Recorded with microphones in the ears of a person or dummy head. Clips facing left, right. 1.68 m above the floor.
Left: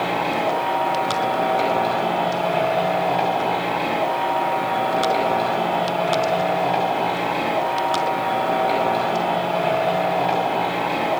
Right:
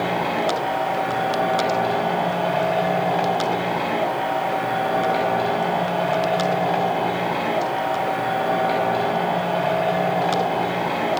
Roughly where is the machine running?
Centre.